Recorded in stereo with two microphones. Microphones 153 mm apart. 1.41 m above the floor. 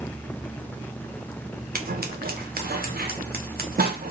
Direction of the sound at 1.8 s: 80° right.